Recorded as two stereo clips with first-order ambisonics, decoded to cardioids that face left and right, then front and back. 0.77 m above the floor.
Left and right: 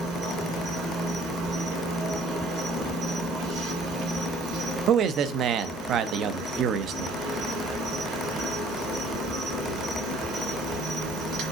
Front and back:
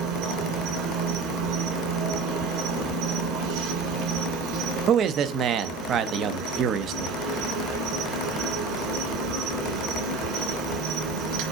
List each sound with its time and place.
0.0 s an insect: 140° right, 2.5 m
4.9 s a man speaking: 135° right, 0.6 m